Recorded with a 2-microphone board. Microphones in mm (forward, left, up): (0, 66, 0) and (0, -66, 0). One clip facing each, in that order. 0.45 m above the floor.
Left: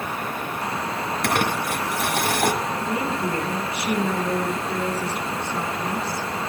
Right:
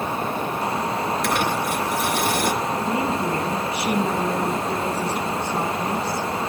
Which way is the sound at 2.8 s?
30° right (ahead or behind).